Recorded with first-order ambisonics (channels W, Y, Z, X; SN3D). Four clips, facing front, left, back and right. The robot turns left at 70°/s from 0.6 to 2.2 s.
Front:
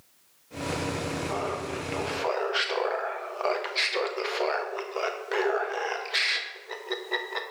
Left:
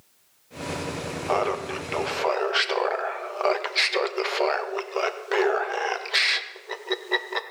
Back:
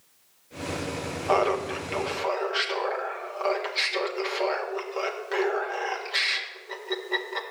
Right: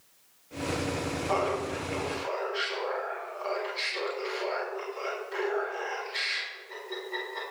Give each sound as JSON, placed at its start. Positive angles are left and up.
{"t": 1.3, "sound": "laughter", "azimuth_deg": 150, "distance_m": 0.9}